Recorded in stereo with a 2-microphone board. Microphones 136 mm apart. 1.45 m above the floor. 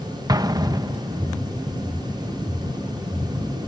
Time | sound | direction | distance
0.3 | an explosion | 30° right (ahead or behind) | ?